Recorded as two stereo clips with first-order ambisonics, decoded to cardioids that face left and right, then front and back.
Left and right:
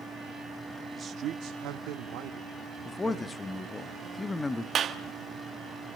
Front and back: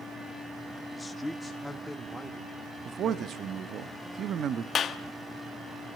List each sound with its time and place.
0.9 s a man speaking: 60° right, 0.5 m; by 3.6 s 95° right, 2.5 m
2.9 s a man speaking: 165° left, 0.7 m
4.8 s a clap: 45° right, 1.0 m